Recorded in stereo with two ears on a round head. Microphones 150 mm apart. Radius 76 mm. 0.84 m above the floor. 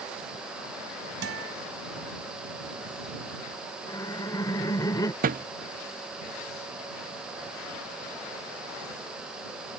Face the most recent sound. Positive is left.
turn(degrees=-50)  # may be behind; listen again after turning